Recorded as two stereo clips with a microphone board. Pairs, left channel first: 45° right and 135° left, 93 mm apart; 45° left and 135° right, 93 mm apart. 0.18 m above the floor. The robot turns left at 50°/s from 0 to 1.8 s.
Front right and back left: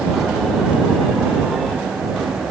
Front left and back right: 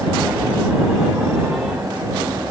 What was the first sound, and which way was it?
Only background noise.